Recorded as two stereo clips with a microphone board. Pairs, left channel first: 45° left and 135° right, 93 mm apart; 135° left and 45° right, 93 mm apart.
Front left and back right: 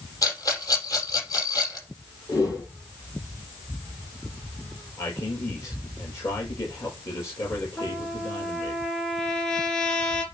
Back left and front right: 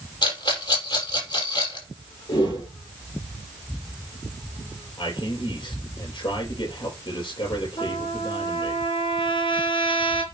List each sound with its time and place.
0.2 s a rattle: 100° left, 6 m
2.3 s a whoosh: 100° left, 5.5 m
5.0 s a man speaking: 105° left, 5.5 m
7.8 s a trumpet: 125° left, 4 m